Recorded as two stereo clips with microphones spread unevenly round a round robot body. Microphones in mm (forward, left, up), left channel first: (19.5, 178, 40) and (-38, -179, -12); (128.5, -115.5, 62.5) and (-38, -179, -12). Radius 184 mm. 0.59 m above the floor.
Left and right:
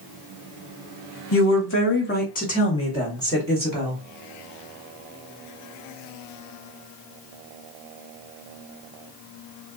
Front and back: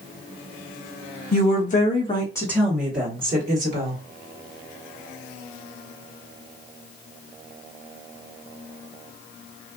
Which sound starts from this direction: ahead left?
A woman speaking, at 1.3 s.